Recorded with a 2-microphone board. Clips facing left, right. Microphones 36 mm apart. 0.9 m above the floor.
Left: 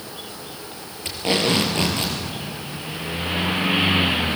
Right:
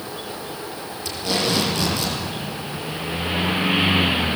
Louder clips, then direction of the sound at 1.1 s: Left 2 dB; 40° left (ahead or behind).